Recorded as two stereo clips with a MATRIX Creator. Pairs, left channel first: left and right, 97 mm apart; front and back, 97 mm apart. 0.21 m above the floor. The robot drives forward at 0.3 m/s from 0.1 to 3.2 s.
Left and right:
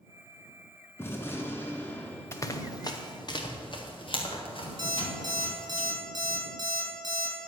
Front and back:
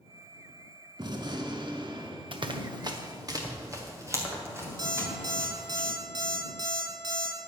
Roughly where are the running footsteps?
Behind left.